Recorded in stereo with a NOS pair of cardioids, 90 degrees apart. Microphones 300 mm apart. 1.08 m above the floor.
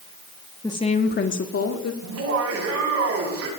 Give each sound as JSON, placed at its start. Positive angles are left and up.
{"t": 0.6, "sound": "a woman speaking", "azimuth_deg": 10, "distance_m": 1.4}
{"t": 2.0, "sound": "laughter", "azimuth_deg": -50, "distance_m": 10.0}